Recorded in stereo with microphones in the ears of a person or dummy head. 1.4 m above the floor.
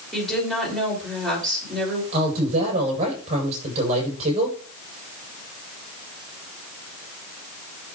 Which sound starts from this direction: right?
A woman speaking, at 2.1 s.